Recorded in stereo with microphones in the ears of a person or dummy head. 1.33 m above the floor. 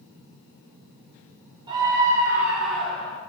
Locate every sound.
1.7 s a scream: 20° right (ahead or behind), 3 m; by 3.2 s 10° left (ahead or behind), 3.5 m